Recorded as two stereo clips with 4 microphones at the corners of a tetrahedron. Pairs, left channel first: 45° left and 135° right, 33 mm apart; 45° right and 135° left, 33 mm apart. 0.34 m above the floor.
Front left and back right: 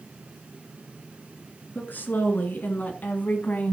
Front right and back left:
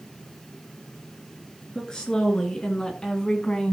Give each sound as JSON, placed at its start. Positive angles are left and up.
{"t": 1.8, "sound": "a woman speaking", "azimuth_deg": 25, "distance_m": 4.5}